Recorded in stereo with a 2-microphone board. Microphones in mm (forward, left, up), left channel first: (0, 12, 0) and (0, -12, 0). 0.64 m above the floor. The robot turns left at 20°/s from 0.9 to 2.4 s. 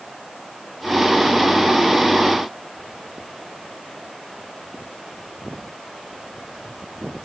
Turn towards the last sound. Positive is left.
No sound to turn to.